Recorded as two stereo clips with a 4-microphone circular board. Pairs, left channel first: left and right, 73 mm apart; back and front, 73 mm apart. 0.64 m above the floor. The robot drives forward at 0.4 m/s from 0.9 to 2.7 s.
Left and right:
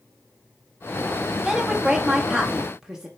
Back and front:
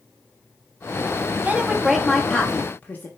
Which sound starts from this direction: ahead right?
A woman speaking, at 1.4 s.